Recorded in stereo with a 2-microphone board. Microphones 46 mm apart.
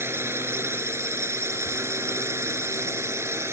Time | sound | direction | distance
0.0 | a drone | 65° right (ahead or behind) | ?